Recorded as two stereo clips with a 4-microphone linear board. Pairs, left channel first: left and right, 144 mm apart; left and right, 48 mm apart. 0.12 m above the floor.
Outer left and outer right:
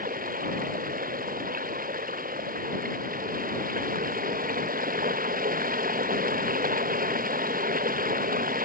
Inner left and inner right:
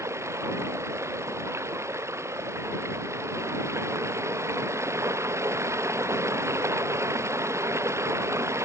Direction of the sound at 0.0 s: 80° right.